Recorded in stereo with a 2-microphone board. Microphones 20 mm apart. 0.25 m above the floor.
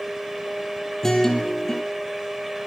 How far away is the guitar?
About 4.5 m.